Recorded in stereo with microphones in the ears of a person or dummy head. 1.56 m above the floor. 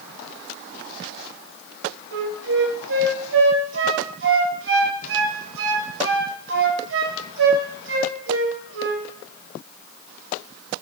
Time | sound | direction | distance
2.1 | a flute | 70° right (ahead or behind) | 0.9 m